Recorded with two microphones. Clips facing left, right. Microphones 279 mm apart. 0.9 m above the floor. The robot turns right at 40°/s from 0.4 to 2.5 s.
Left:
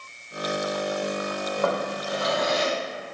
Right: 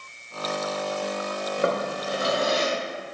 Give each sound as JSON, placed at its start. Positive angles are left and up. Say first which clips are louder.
{"t": 1.6, "sound": "a drawer", "louder": "right 2 dB", "azimuth_deg": -140, "distance_m": 0.6}